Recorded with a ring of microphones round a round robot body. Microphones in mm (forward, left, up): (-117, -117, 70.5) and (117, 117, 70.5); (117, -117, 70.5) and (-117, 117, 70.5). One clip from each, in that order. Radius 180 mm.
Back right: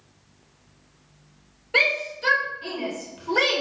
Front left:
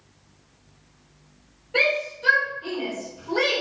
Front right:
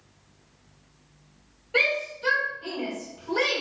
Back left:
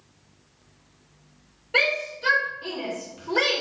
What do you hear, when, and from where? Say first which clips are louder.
1.7 s a shout: back right 1 dB, back left 1 dB; 160° right, 2.5 m; by 3.6 s 165° right, 1.7 m